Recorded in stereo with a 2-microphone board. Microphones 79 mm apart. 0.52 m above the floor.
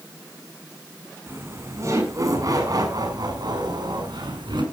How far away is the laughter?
About 6.5 m.